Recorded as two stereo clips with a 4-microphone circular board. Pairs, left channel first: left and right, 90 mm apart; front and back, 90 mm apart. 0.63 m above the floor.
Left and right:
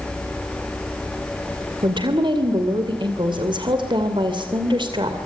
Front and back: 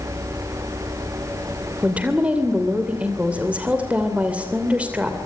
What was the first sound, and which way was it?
A woman speaking, 105° right.